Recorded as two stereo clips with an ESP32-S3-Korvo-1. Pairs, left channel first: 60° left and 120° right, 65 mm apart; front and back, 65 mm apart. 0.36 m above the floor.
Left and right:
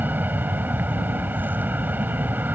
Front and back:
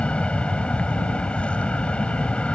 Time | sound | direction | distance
0.0 | an aircraft | 65° right | ?